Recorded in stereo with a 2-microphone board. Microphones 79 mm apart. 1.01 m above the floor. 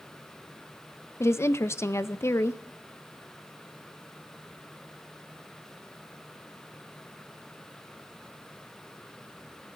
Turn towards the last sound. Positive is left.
turn(degrees=35)  # may be behind; listen again after turning